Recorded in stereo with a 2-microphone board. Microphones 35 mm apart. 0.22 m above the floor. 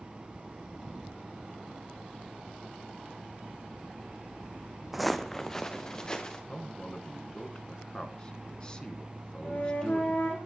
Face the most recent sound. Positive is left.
turn(degrees=50)  # may be behind; listen again after turning